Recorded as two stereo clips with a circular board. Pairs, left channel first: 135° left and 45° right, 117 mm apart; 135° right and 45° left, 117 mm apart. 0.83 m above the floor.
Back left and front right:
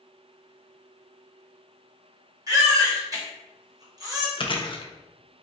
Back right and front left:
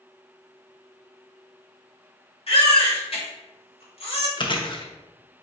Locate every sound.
2.5 s a baby crying: 100° right, 2.0 m
4.4 s chewing: straight behind, 0.6 m